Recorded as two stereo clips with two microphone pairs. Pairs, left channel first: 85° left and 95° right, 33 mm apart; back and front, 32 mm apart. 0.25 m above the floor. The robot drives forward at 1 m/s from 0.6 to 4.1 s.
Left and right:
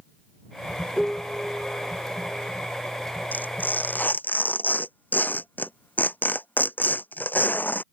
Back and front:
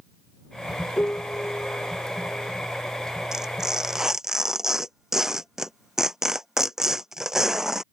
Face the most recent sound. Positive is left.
turn(degrees=75)